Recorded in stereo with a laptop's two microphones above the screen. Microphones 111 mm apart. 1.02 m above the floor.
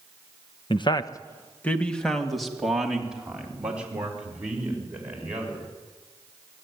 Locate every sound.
0.7 s a man speaking: 50° left (ahead or behind), 0.9 m; by 5.7 s 15° right (ahead or behind), 5.5 m